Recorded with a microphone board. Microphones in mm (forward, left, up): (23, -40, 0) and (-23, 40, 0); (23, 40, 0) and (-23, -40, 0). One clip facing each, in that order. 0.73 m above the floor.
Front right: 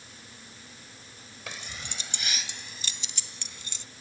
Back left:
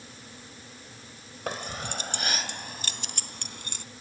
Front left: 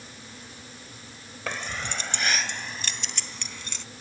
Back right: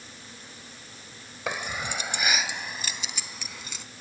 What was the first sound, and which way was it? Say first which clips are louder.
Keys jangling: back left 9 dB, back right 1 dB; 160° left.